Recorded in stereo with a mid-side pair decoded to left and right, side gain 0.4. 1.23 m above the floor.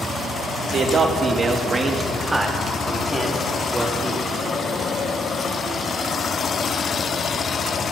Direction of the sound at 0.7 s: 55° right.